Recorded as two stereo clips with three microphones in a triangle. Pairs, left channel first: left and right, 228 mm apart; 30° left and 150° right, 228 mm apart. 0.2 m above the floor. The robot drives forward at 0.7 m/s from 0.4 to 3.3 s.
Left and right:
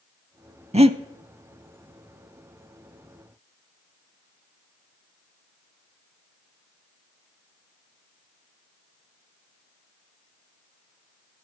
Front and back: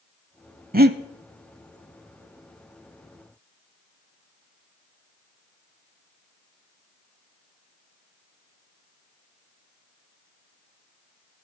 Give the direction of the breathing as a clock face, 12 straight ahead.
5 o'clock.